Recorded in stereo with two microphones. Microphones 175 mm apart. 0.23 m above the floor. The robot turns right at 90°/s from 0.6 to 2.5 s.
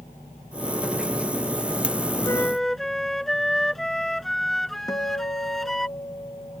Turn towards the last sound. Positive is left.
turn(degrees=20)  # may be behind; listen again after turning